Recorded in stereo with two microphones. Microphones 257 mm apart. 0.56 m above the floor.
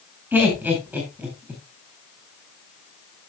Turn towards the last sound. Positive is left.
turn(degrees=-5)  # may be behind; listen again after turning